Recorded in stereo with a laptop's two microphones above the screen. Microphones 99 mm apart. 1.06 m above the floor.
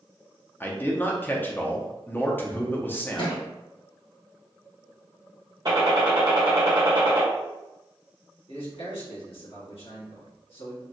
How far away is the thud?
About 1.8 m.